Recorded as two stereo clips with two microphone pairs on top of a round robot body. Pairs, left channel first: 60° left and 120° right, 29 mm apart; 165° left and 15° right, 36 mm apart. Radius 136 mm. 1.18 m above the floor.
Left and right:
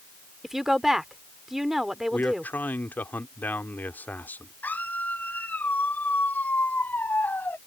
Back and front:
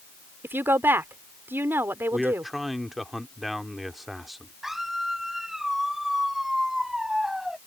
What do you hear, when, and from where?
0.4 s a woman speaking: 40° right
2.1 s a man speaking: 70° left
4.6 s a scream: 65° left